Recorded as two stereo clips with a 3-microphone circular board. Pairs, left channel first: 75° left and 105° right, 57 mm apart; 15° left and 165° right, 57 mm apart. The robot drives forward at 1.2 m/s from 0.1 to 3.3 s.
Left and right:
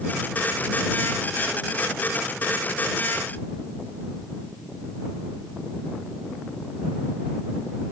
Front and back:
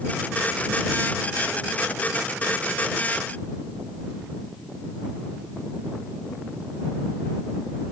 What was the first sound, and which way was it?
Only background noise.